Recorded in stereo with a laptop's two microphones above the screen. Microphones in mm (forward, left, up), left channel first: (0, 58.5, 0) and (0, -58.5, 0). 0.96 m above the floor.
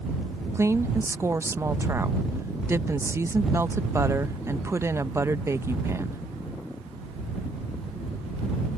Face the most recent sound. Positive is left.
turn(degrees=-25)  # may be behind; listen again after turning